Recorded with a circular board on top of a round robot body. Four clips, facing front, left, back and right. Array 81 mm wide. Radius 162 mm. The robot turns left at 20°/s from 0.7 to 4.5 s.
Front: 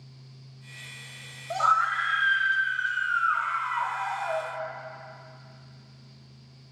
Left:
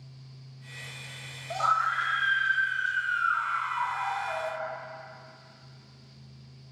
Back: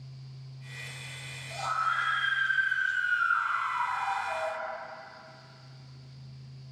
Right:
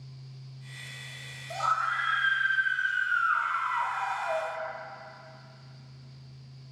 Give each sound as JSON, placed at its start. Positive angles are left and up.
{"t": 1.5, "sound": "a scream", "azimuth_deg": 20, "distance_m": 3.0}